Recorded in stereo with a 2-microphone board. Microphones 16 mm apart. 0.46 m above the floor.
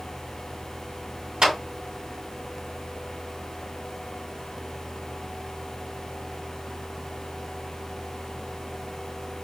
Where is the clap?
60° right (ahead or behind), 3 m.